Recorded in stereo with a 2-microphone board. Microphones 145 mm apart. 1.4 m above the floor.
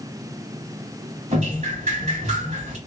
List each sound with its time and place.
1.3 s dripping: 60° right (ahead or behind), 1.2 m